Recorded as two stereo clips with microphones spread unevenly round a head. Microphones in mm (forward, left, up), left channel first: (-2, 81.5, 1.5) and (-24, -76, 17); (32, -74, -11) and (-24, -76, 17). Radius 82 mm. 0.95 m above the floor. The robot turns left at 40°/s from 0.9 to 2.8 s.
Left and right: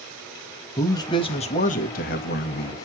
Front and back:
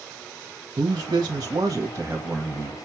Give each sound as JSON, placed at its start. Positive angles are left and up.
{"t": 0.8, "sound": "a man speaking", "azimuth_deg": 145, "distance_m": 1.2}